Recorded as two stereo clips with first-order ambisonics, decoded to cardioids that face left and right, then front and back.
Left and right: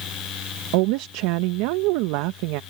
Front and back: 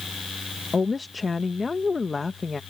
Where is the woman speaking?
80° right.